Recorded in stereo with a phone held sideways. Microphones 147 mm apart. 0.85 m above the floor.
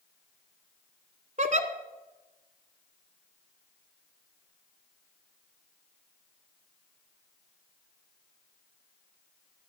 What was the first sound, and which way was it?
A giggle, 55° right (ahead or behind).